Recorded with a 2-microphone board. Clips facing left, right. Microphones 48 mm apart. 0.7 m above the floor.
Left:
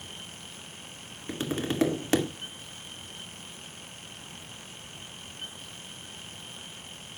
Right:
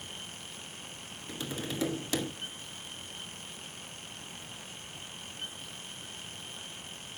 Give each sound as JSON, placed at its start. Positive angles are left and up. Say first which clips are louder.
{"t": 1.3, "sound": "tapping", "louder": "left 7 dB", "side_deg": 50, "distance_m": 2.0}